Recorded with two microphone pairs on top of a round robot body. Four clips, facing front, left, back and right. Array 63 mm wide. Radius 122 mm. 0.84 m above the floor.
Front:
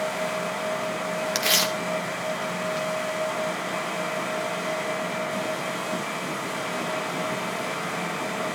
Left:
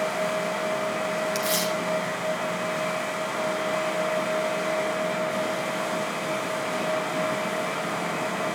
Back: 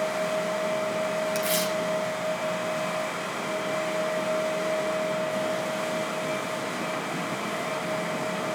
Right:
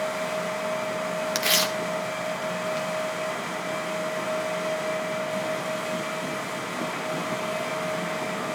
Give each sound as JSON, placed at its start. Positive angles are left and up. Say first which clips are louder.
{"t": 1.4, "sound": "tearing paper", "louder": "even, front 1 dB", "azimuth_deg": -45, "distance_m": 0.8}